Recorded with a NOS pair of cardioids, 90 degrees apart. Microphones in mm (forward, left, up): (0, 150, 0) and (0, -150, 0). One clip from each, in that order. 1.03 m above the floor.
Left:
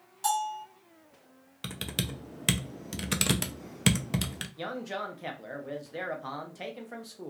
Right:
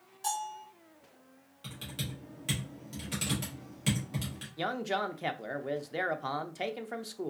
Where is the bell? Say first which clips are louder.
Left 6 dB; 40° left, 1.7 m.